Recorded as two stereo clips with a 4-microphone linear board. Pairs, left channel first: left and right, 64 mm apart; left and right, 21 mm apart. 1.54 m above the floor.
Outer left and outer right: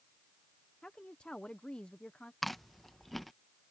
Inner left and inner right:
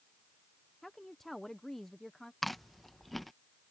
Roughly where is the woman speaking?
Centre.